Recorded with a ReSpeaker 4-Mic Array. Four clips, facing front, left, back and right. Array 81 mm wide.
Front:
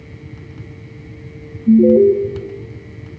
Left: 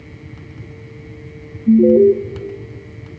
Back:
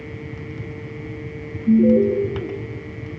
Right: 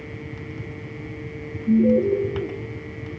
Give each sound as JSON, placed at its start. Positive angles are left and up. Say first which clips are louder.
{"t": 1.7, "sound": "an alarm", "louder": "left 8 dB, front 5 dB", "azimuth_deg": 55, "distance_m": 4.0}